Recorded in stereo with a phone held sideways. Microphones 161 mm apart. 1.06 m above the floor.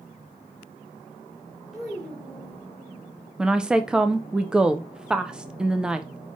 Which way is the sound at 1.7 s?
Centre (ahead or behind).